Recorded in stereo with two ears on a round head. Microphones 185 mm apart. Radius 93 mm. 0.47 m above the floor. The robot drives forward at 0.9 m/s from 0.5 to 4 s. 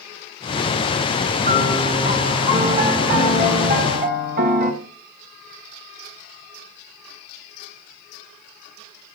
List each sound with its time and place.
1.4 s a piano: 30° right (ahead or behind), 6 m; by 4.7 s 45° right (ahead or behind), 4 m